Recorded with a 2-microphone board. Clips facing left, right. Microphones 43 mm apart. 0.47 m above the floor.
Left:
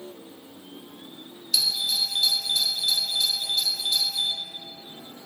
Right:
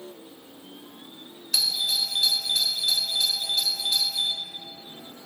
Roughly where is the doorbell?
Right.